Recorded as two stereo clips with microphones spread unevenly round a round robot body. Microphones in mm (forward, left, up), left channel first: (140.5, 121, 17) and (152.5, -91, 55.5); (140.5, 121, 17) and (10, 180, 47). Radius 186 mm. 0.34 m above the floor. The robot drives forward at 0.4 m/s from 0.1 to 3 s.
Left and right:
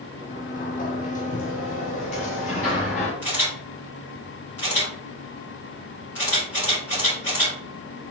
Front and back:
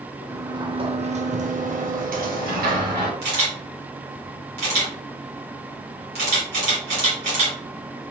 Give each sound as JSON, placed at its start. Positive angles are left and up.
{"t": 0.3, "sound": "a sliding door", "azimuth_deg": 75, "distance_m": 0.7}
{"t": 3.2, "sound": "a camera shutter", "azimuth_deg": 175, "distance_m": 2.0}